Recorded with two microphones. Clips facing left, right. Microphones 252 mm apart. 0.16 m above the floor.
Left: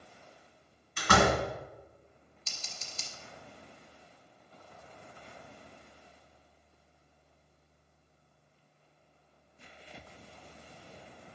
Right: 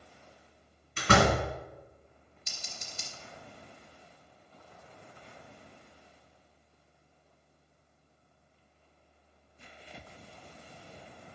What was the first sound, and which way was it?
A door slam, 35° right (ahead or behind).